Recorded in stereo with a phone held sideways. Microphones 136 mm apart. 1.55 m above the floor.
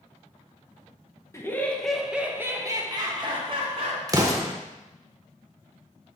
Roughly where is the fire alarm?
I don't hear a fire alarm.